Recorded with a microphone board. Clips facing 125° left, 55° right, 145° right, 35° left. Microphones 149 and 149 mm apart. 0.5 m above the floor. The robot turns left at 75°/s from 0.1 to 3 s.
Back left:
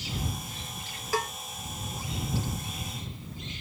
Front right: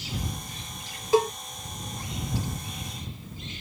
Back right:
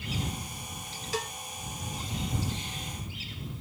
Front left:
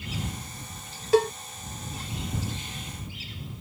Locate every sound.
1.1 s a cowbell: 10° left; by 1.3 s 5° right